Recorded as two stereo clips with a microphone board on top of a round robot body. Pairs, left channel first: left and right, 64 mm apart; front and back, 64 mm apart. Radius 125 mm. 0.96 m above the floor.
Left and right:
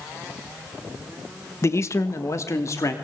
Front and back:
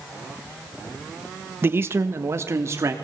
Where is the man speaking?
130° left, 1.2 m; by 2.9 s 135° left, 2.5 m.